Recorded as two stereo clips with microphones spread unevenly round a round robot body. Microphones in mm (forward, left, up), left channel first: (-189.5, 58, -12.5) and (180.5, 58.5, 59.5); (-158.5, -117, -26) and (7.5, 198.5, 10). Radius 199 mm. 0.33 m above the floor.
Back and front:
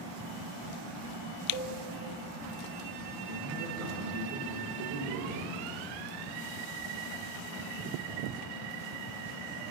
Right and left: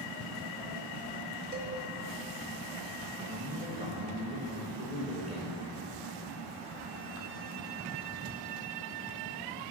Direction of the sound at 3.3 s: 5° right.